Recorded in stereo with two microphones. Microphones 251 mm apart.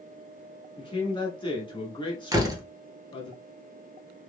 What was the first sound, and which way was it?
A man speaking, 20° left (ahead or behind).